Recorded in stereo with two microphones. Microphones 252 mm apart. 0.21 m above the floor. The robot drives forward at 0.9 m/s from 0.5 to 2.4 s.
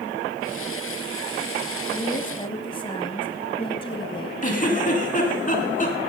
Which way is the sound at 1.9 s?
20° left (ahead or behind).